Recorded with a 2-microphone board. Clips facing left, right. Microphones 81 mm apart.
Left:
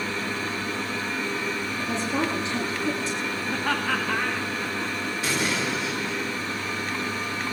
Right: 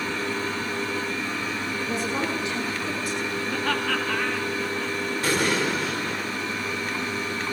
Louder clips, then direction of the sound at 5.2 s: Right 4 dB; 45° right (ahead or behind).